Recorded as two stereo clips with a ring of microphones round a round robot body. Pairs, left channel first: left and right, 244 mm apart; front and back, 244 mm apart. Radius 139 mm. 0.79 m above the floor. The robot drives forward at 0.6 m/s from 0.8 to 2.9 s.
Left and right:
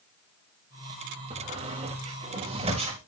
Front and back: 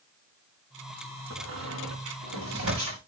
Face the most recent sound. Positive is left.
turn(degrees=-155)